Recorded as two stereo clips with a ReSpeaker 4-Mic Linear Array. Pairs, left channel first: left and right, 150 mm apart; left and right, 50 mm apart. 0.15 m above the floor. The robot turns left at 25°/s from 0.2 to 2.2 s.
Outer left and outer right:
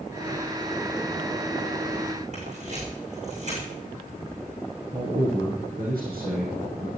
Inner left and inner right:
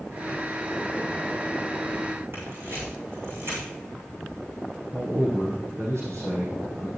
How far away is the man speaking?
About 6 m.